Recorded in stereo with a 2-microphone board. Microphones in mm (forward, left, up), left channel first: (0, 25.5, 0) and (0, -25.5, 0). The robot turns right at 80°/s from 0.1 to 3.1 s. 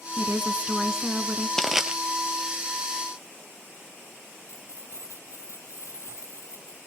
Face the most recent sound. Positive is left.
turn(degrees=65)  # may be behind; listen again after turning